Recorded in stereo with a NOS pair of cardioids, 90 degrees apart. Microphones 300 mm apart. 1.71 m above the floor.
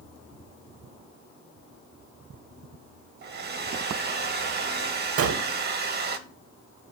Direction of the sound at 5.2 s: 50° right.